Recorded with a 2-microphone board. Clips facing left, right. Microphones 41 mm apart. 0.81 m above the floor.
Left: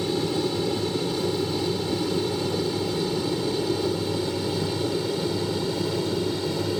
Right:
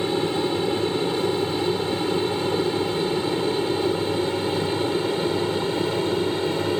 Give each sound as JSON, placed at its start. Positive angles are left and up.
{"t": 0.0, "sound": "an aircraft", "side_deg": -30}